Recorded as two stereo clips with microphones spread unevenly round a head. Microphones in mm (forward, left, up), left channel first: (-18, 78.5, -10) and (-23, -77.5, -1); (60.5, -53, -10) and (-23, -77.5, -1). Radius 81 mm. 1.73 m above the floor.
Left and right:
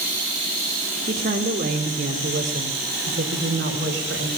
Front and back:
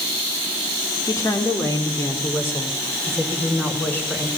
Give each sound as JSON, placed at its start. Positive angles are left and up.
{"t": 1.1, "sound": "a woman speaking", "azimuth_deg": -35, "distance_m": 4.0}